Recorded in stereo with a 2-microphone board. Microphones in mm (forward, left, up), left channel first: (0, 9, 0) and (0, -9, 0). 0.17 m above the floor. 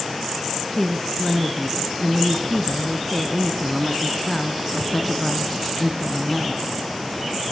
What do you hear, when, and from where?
0.7 s a woman speaking: 15° left (ahead or behind), 1.4 m